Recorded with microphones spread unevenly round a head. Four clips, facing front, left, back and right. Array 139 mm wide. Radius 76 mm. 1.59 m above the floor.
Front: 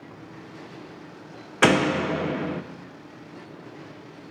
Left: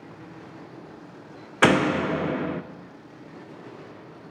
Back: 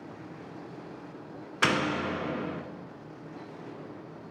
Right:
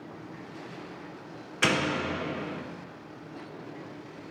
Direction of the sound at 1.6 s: 55° left.